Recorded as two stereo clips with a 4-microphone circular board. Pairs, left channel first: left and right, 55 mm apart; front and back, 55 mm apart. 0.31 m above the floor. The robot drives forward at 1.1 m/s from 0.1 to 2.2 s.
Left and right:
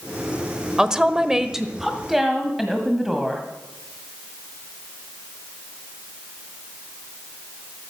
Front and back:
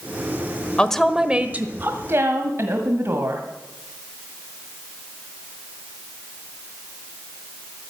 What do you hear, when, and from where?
0.8 s a woman speaking: 30° right, 0.9 m; by 3.4 s 170° right, 1.6 m